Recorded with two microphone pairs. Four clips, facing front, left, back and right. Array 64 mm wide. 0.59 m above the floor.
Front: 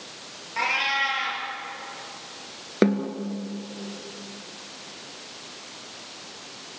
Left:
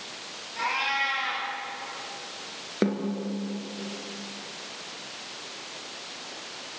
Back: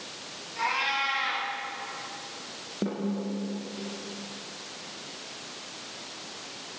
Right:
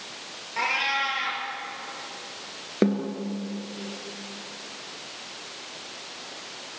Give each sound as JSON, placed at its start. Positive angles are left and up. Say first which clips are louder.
{"t": 0.6, "sound": "a cat meowing", "louder": "right 2 dB, front 3 dB", "azimuth_deg": -50, "distance_m": 8.0}
{"t": 2.8, "sound": "a snare drum", "louder": "right 3 dB, front 8 dB", "azimuth_deg": 5, "distance_m": 3.0}